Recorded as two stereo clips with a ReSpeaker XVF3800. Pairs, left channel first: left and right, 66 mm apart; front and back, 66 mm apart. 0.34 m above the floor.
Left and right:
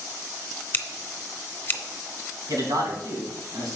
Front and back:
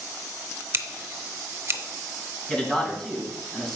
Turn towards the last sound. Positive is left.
turn(degrees=-75)